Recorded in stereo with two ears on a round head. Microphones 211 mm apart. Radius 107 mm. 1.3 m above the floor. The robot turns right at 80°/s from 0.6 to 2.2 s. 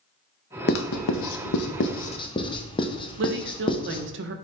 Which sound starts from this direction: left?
Writing, at 0.7 s.